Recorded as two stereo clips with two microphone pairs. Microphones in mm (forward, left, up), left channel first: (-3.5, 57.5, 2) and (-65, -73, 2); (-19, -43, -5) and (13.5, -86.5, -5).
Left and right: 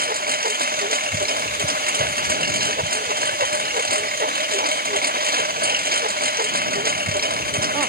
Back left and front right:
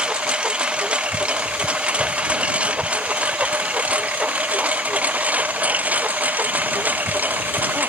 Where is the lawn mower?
125° right; by 7.9 s 110° right.